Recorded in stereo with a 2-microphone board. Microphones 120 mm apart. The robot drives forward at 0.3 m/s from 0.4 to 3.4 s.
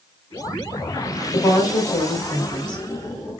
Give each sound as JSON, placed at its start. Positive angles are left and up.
{"t": 1.3, "sound": "a woman speaking", "side_deg": 40, "distance_m": 2.0}